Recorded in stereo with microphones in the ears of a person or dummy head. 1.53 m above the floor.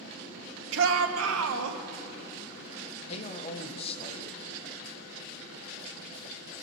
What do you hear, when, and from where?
0.7 s a shout: 70° right (ahead or behind), 0.9 m; by 1.8 s 75° right (ahead or behind), 1.1 m
3.1 s a man speaking: 35° left (ahead or behind), 0.8 m